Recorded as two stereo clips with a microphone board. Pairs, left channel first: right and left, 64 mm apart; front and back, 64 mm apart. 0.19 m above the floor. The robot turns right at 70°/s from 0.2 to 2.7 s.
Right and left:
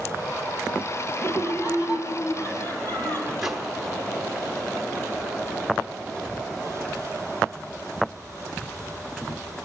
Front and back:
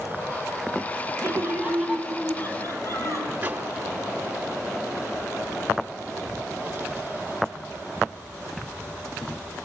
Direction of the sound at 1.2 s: 145° right.